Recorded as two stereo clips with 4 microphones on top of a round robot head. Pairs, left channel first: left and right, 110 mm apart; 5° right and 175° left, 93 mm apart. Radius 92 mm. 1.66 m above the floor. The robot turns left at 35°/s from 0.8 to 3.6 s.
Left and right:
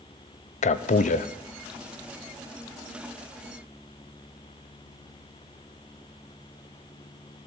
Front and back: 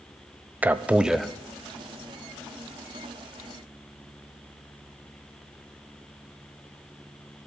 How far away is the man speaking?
About 0.8 m.